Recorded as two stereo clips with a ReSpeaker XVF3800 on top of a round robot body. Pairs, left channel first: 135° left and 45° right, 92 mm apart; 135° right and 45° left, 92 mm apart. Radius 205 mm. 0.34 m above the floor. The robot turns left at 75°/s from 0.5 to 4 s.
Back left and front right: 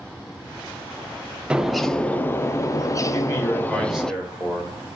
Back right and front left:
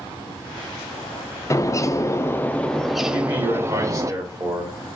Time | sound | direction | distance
1.5 | a bird | 115° right | 0.5 m
3.1 | a man speaking | 95° left | 1.6 m